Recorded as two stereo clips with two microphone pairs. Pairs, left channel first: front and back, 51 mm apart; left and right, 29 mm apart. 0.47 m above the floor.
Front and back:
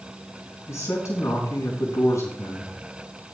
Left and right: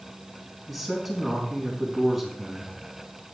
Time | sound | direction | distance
0.7 | a man speaking | straight ahead | 4.5 m